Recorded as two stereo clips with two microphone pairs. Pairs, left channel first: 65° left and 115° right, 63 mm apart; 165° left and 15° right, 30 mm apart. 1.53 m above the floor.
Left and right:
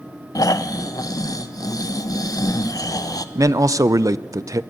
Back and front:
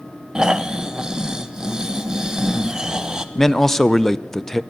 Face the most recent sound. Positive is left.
turn(degrees=-115)